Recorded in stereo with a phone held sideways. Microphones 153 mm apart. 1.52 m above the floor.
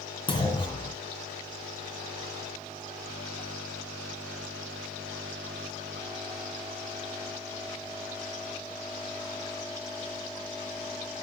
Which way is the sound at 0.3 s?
35° left (ahead or behind).